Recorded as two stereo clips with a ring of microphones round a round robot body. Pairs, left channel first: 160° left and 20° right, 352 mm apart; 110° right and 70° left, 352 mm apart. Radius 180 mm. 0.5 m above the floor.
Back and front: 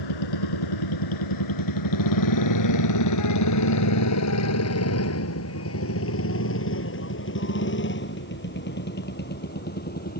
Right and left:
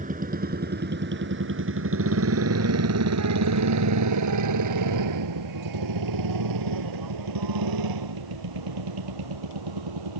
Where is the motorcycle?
135° left; by 10.2 s 90° left.